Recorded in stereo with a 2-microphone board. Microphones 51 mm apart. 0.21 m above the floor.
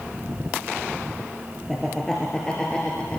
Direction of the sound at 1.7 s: Centre (ahead or behind).